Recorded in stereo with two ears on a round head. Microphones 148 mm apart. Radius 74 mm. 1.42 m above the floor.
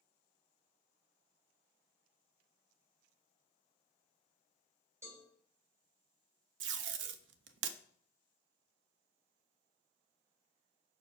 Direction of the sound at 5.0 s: 15° right (ahead or behind).